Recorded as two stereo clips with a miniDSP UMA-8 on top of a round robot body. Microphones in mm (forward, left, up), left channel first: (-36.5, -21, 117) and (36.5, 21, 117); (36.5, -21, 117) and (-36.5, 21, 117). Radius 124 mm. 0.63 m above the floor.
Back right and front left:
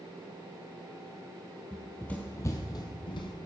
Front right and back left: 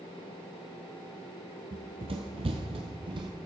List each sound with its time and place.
1.7 s running footsteps: 115° left, 1.0 m; by 3.3 s straight behind, 1.3 m